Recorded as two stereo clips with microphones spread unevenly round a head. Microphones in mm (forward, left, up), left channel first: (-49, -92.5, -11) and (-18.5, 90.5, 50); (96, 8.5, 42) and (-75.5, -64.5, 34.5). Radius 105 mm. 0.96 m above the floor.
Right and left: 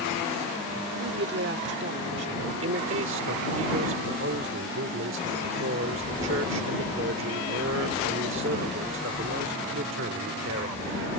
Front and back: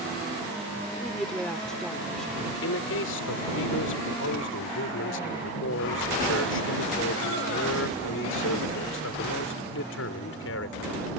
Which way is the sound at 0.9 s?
110° left.